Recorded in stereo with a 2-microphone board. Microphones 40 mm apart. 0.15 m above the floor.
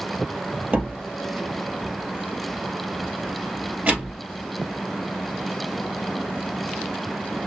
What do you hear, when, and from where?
0.7 s a door slam: 40° right (ahead or behind), 2.5 m